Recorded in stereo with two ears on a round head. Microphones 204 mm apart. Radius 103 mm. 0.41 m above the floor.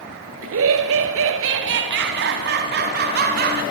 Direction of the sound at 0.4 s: 65° right (ahead or behind).